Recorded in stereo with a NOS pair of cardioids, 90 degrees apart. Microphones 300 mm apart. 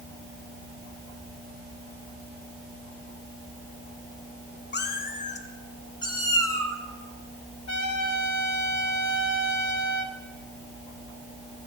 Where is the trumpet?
65° left, 1.5 m.